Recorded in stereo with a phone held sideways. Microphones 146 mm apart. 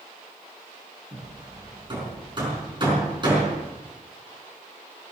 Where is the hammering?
30° right (ahead or behind), 5 m.